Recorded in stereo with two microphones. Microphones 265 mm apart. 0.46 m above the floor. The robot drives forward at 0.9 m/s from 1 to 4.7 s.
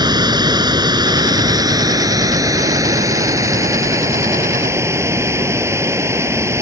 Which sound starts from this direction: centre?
Running water, at 0.0 s.